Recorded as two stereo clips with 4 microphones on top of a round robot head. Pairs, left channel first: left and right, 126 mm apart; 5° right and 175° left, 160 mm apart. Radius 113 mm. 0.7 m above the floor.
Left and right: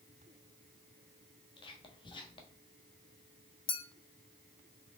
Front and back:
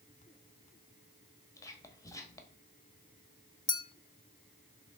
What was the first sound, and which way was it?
Whispering, 60° left.